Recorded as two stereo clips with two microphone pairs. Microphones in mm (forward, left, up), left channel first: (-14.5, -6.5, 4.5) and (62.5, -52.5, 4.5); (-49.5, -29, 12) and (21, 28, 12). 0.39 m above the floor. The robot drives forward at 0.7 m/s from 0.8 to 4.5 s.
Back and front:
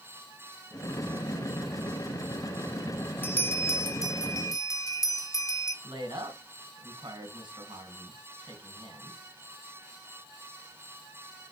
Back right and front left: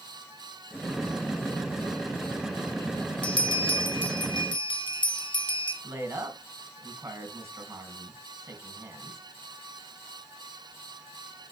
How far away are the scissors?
No scissors in this recording.